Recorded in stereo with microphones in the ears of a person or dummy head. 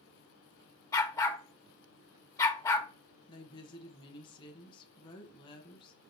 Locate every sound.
0.9 s a dog barking: 15° left (ahead or behind), 0.7 m
3.3 s a woman speaking: 25° left (ahead or behind), 1.0 m